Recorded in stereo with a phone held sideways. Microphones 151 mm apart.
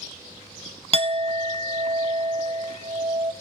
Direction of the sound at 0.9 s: 40° right (ahead or behind).